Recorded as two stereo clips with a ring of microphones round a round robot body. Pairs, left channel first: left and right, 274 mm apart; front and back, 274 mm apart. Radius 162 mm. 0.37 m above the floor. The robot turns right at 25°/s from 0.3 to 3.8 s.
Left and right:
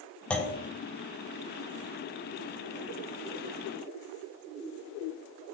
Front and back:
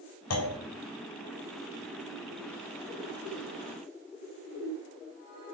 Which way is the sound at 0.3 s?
5° left.